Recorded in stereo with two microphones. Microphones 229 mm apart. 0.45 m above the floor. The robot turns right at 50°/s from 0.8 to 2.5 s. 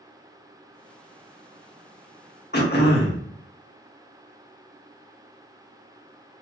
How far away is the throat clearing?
About 0.6 m.